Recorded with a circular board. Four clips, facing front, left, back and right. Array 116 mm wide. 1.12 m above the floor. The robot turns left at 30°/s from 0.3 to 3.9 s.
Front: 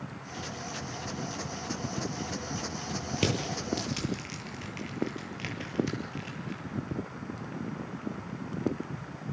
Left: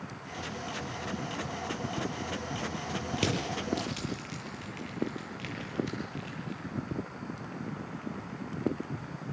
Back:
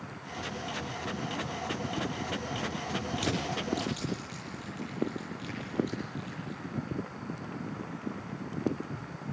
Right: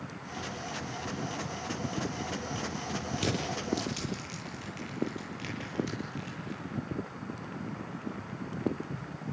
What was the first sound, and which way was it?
Crushing, 25° left.